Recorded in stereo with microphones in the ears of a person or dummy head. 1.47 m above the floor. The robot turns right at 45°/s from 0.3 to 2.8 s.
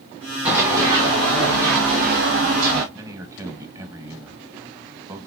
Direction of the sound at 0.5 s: 10° right (ahead or behind).